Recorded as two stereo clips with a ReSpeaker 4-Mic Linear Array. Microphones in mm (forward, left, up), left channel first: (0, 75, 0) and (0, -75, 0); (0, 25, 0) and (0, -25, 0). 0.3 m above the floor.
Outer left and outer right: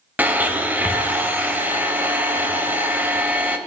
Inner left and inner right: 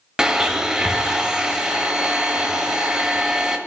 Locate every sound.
0.2 s a blender: 10° right (ahead or behind), 0.8 m